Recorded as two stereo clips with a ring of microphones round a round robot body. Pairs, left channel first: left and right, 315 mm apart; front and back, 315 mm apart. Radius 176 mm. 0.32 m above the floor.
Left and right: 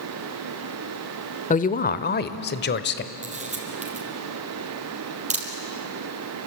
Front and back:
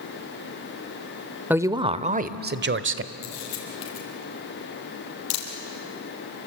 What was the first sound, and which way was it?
A woman speaking, 105° left.